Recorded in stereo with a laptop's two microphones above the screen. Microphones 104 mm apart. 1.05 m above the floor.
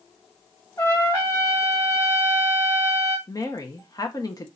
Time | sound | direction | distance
0.8 | a trumpet | 30° left (ahead or behind) | 2.5 m
3.3 | a woman speaking | 35° left (ahead or behind) | 1.1 m